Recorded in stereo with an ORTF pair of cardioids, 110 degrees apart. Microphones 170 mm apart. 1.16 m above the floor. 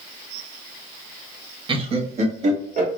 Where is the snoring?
I don't hear snoring.